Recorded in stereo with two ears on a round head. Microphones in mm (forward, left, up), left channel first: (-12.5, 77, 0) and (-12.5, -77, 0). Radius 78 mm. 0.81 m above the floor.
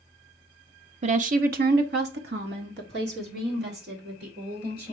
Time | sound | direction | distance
1.0 | a woman speaking | 40° right (ahead or behind) | 0.8 m